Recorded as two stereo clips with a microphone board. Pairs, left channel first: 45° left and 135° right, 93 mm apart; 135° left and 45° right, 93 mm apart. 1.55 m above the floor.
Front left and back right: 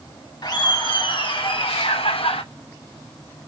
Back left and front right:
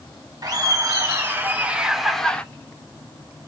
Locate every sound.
0.4 s laughter: 5° left, 1.4 m; by 2.4 s 60° left, 0.9 m